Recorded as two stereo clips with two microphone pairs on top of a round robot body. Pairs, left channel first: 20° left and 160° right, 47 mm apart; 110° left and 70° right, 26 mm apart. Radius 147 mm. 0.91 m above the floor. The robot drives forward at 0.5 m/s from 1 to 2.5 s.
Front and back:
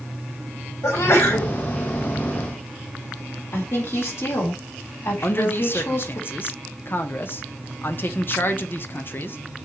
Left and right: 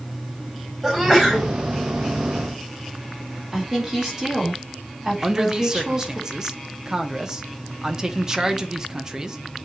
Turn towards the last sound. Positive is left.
turn(degrees=-5)